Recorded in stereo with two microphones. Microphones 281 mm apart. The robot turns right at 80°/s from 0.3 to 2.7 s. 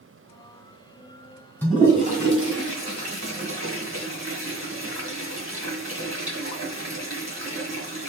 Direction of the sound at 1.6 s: 5° left (ahead or behind).